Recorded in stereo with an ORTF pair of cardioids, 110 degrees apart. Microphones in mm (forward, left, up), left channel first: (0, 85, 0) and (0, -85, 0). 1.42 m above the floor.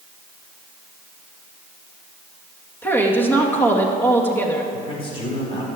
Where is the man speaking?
35° left, 4.5 m.